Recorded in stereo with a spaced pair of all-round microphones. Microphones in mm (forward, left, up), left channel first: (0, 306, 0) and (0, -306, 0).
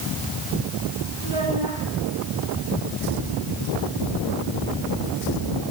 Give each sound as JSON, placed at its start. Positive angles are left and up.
{"t": 1.2, "sound": "a child speaking", "side_deg": -50, "distance_m": 8.5}